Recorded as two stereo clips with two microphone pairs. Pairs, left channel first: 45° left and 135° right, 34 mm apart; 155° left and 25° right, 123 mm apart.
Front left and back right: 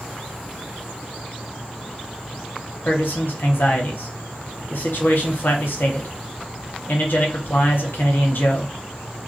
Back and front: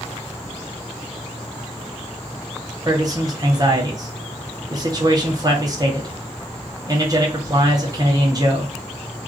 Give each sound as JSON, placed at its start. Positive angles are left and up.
{"t": 2.9, "sound": "a man speaking", "azimuth_deg": 30, "distance_m": 0.9}